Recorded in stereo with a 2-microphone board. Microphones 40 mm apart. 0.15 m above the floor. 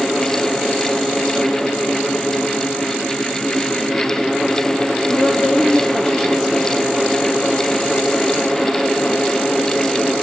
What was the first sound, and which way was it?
A woman speaking, 15° left (ahead or behind).